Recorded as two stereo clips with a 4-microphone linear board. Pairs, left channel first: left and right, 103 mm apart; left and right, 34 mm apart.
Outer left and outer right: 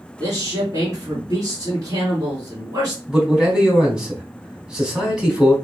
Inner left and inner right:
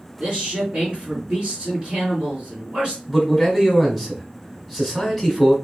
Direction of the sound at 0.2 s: 35° right (ahead or behind).